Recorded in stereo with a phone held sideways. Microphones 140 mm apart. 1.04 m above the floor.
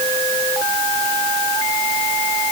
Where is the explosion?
No explosion in this recording.